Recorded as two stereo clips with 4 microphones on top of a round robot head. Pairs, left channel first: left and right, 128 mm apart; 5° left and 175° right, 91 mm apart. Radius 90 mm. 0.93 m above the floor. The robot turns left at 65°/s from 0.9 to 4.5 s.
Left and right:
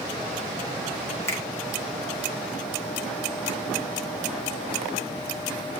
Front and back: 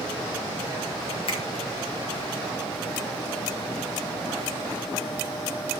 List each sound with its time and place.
1.3 s a finger snap: 20° left, 3.5 m; by 1.4 s 10° left, 3.5 m